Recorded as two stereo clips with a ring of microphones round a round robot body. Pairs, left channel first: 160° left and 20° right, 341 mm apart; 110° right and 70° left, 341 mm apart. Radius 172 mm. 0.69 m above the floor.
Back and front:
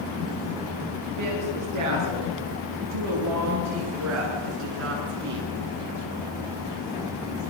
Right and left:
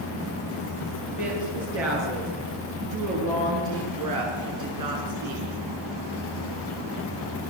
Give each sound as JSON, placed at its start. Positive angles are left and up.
{"t": 1.2, "sound": "a woman speaking", "azimuth_deg": 15, "distance_m": 9.5}